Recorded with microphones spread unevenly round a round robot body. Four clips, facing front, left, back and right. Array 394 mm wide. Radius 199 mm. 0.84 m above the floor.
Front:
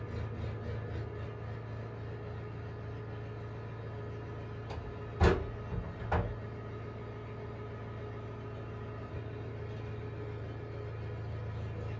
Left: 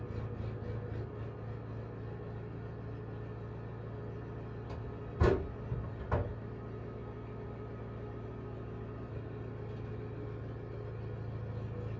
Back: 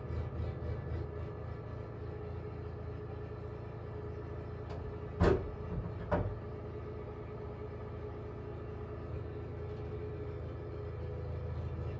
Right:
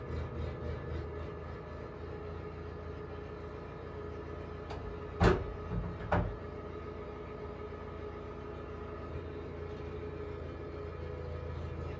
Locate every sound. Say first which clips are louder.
0.0 s an engine running: right 2 dB, front 1 dB; 80° left, 1.4 m
4.7 s a door slam: right 2 dB, front 1 dB; 115° left, 2 m